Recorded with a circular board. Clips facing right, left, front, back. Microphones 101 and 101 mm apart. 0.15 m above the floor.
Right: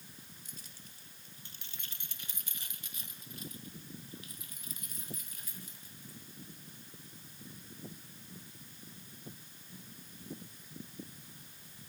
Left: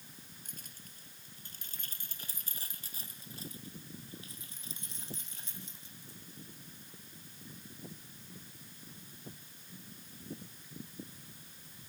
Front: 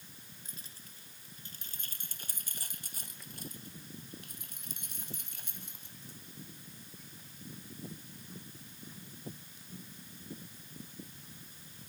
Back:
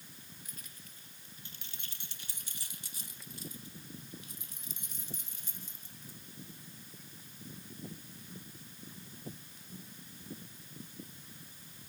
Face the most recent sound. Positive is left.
turn(degrees=25)